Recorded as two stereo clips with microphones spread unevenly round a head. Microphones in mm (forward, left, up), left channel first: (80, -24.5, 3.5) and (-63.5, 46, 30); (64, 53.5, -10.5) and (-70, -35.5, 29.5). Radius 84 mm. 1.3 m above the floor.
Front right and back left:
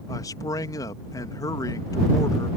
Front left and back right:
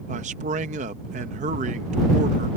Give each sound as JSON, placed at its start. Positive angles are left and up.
{"t": 0.1, "sound": "a man speaking", "azimuth_deg": -100}